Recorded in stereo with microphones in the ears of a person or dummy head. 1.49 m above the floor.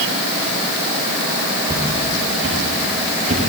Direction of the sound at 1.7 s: 25° right (ahead or behind).